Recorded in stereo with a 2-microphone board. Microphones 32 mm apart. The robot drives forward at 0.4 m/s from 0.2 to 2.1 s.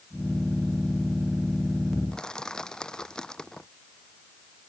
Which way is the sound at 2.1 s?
25° left (ahead or behind).